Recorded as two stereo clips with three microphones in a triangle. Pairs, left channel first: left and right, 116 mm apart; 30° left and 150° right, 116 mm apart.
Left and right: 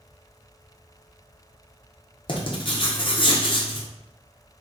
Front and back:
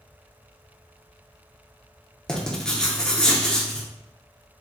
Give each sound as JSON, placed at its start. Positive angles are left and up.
{"t": 2.3, "sound": "writing", "azimuth_deg": 110, "distance_m": 0.7}